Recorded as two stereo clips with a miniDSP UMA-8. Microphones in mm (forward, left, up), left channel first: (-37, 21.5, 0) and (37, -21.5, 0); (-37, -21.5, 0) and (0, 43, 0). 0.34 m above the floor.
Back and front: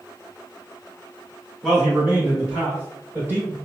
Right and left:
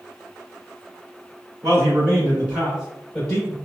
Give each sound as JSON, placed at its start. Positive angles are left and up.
{"t": 1.6, "sound": "a man speaking", "azimuth_deg": 45, "distance_m": 1.6}